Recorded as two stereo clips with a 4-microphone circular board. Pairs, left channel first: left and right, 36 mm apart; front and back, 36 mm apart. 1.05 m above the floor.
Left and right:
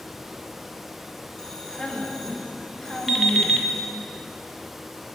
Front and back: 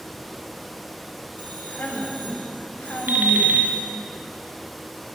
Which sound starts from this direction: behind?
An alarm clock, at 3.1 s.